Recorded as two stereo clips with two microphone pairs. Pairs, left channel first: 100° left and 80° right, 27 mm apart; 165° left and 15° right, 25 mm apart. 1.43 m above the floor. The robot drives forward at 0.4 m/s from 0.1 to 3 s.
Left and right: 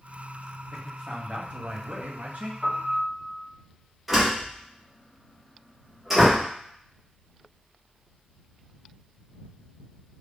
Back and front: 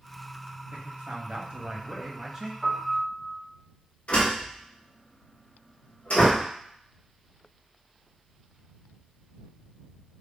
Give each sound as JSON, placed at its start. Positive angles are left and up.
{"t": 0.7, "sound": "a man speaking", "azimuth_deg": -40, "distance_m": 1.0}
{"t": 2.6, "sound": "a piano", "azimuth_deg": -75, "distance_m": 1.0}
{"t": 4.1, "sound": "a door slam", "azimuth_deg": -165, "distance_m": 1.2}